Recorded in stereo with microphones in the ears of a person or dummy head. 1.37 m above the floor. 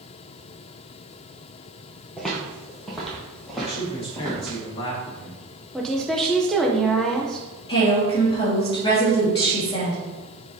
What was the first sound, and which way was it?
Footsteps, 5° left (ahead or behind).